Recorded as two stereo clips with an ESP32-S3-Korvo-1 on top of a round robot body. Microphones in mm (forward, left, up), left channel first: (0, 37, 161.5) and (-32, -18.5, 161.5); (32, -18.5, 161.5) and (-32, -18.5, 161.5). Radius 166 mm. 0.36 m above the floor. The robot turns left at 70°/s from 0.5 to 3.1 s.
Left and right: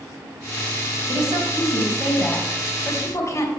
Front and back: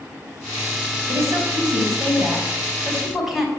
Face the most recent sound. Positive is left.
turn(degrees=95)